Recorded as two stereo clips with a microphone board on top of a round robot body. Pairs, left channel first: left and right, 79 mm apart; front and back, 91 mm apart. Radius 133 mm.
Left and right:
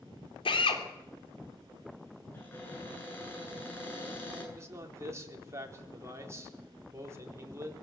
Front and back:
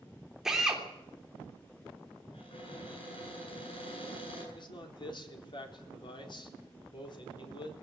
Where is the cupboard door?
25° left, 9.5 m.